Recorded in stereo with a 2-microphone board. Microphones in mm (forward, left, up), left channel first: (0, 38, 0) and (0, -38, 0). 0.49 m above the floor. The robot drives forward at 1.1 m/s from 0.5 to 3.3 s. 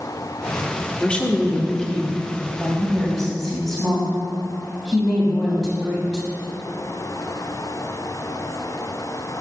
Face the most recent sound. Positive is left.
turn(degrees=5)  # may be behind; listen again after turning